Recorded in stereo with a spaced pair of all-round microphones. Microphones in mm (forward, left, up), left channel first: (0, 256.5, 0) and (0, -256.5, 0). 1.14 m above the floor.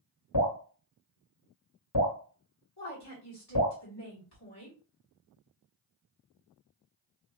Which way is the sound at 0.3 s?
40° left (ahead or behind).